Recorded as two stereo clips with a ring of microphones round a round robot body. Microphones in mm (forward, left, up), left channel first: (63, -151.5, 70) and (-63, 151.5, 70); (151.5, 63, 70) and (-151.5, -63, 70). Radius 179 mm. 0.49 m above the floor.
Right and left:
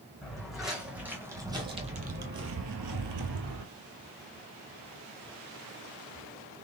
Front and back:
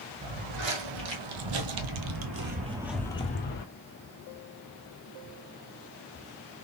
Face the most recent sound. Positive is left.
turn(degrees=75)